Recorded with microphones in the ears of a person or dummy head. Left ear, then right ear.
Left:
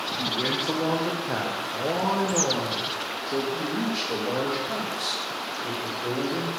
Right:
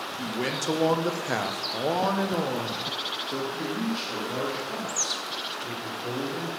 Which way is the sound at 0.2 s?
40° right (ahead or behind).